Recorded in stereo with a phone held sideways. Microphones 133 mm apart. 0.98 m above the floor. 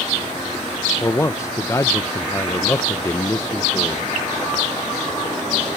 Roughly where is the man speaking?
Left.